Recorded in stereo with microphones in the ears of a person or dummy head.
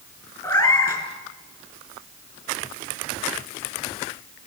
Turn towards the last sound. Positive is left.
turn(degrees=15)  # may be behind; listen again after turning